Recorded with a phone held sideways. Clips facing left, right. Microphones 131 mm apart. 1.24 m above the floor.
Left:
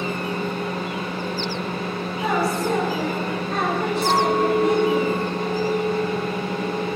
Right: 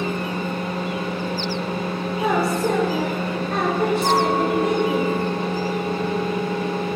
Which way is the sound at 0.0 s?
5° right (ahead or behind).